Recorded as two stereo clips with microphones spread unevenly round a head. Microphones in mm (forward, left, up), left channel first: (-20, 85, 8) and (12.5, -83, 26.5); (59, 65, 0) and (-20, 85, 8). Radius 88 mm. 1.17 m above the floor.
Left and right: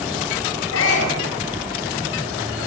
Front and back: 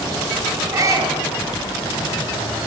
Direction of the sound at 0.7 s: 115° left.